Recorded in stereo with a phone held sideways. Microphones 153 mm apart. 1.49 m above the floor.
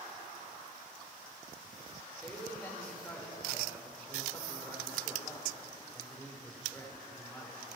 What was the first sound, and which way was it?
A man speaking, 10° left (ahead or behind).